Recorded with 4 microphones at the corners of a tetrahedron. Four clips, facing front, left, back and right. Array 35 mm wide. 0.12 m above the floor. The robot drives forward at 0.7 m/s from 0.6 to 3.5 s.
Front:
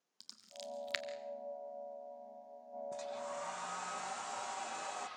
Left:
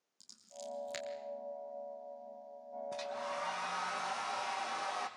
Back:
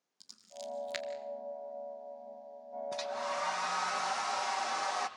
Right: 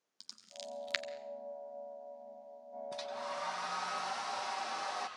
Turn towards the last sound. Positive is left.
turn(degrees=-170)